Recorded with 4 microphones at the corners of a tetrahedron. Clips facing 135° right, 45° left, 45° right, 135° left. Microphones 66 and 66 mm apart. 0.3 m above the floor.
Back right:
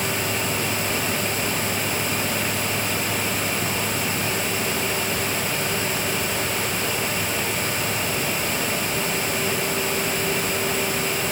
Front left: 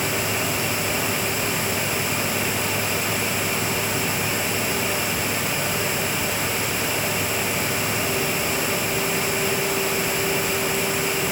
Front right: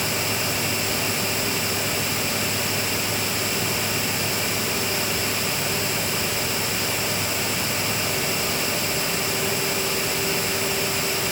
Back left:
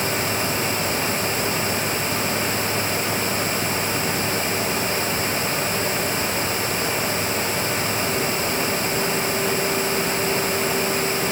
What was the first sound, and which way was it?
Only background noise.